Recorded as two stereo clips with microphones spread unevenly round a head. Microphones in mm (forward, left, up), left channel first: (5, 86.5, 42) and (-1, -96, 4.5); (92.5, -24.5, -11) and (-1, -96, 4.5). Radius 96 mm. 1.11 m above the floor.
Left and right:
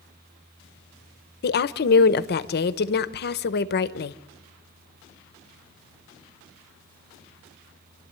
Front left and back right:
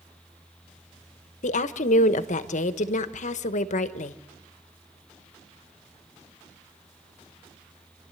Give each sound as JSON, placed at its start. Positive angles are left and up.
{"t": 1.4, "sound": "a woman speaking", "azimuth_deg": 50, "distance_m": 0.9}